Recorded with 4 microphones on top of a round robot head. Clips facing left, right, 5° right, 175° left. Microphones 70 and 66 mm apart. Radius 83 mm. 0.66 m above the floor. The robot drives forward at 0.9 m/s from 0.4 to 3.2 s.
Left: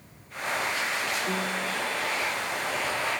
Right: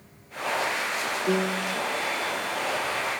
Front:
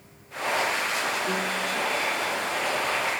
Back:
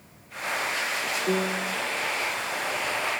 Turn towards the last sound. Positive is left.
turn(degrees=-130)